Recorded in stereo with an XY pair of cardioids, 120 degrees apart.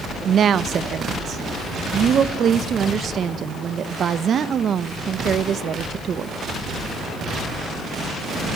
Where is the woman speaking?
45° right, 0.9 m.